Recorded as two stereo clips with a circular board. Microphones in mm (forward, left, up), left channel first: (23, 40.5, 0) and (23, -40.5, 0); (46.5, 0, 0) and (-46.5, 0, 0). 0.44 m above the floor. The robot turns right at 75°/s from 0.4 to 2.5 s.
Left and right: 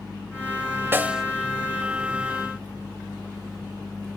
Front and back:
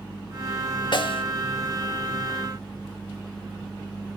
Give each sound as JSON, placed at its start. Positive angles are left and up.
{"t": 0.9, "sound": "a snare drum", "azimuth_deg": -25, "distance_m": 0.7}